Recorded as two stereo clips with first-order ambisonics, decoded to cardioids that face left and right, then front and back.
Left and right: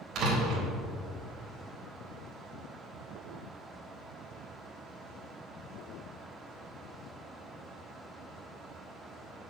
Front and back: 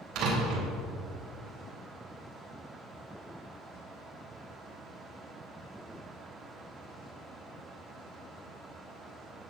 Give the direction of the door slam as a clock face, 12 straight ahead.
5 o'clock.